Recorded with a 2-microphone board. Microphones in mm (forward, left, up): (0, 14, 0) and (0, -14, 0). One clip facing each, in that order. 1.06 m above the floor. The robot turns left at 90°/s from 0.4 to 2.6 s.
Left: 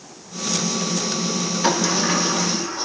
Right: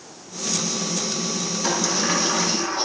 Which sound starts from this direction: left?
A sliding door, at 1.6 s.